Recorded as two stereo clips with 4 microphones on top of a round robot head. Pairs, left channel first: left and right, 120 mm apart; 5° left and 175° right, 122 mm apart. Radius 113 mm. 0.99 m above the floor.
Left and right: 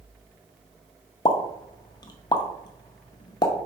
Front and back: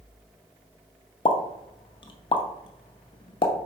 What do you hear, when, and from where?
1.2 s a pop: 45° left, 0.6 m